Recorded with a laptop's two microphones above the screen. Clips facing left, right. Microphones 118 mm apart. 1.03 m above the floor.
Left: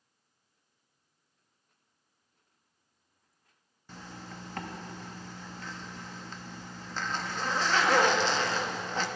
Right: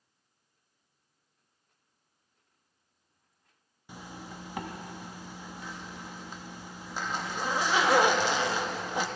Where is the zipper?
15° right (ahead or behind), 0.6 m.